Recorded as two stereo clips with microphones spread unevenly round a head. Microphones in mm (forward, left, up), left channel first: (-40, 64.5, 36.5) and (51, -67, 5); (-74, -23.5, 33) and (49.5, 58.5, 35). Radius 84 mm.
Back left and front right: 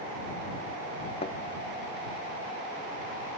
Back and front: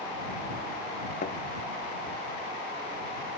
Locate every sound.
1.2 s a thud: straight behind